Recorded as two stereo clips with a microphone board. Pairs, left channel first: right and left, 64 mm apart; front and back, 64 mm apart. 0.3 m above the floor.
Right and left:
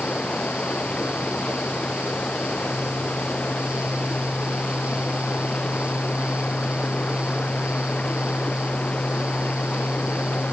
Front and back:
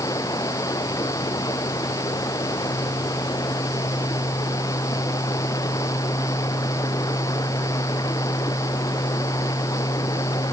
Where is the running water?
20° right.